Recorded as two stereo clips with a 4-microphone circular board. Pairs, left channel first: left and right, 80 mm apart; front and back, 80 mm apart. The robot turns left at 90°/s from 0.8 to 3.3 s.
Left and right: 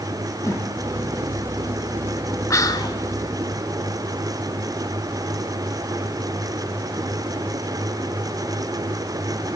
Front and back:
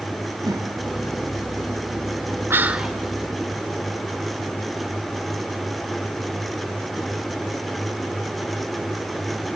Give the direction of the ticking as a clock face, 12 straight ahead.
I don't hear ticking.